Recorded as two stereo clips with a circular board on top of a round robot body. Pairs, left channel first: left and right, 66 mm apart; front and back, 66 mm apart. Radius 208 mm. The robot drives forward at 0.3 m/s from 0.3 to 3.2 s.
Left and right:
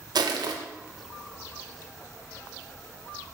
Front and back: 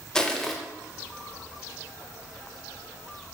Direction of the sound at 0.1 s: 80° right.